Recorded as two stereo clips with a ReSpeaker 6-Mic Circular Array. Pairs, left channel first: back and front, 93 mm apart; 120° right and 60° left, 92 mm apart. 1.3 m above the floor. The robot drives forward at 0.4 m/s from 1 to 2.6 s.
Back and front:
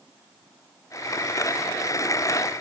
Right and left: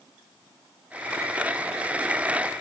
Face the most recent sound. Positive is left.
No sound to turn to.